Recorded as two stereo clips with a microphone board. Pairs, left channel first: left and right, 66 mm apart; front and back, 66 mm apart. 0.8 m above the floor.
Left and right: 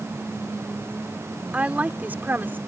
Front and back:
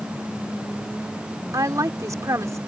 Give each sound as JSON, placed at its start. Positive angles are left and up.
{"t": 1.5, "sound": "a woman speaking", "azimuth_deg": -160}